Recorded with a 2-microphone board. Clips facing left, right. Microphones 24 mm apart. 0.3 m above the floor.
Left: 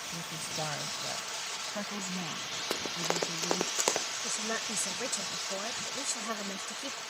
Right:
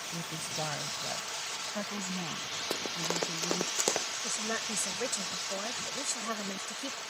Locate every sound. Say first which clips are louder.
0.1 s a woman speaking: right 1 dB; 15° right (ahead or behind); by 3.7 s 25° right (ahead or behind)
2.7 s running footsteps: left 1 dB; 40° left (ahead or behind); by 4.1 s 20° left (ahead or behind)
4.2 s a woman speaking: even; 15° right (ahead or behind)